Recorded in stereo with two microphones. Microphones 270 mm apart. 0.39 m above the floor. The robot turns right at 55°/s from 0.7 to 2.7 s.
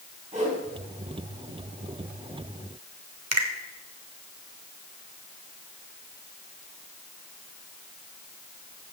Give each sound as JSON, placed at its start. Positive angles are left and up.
{"t": 0.3, "sound": "a whoosh", "side_deg": -25, "distance_m": 3.0}
{"t": 3.3, "sound": "a finger snap", "side_deg": -65, "distance_m": 1.2}